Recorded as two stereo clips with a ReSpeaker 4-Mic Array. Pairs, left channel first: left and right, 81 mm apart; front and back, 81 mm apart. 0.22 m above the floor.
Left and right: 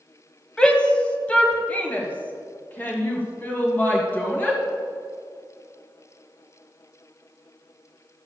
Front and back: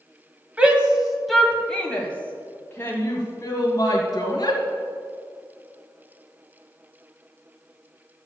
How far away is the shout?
About 1.5 m.